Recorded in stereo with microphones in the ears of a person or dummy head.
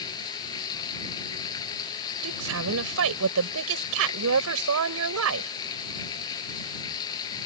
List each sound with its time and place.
0.0 s running water: 20° left (ahead or behind)
2.2 s a woman speaking: 80° right